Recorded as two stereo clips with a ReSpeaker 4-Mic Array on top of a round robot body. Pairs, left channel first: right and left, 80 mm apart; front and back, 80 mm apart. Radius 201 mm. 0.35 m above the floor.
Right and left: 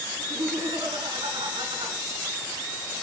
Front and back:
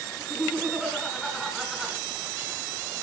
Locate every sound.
0.2 s laughter: 95° left, 5 m